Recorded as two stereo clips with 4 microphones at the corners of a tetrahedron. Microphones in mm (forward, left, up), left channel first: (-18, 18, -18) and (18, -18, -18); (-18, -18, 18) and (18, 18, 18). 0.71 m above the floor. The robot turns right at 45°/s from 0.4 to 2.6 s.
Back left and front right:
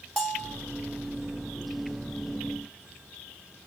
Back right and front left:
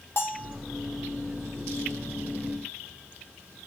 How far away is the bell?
About 0.7 m.